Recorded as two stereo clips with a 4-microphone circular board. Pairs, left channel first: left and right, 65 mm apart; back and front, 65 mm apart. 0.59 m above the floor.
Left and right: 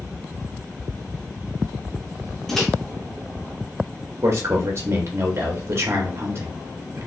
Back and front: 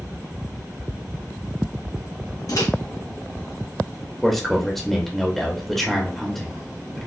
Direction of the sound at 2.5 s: 175° left.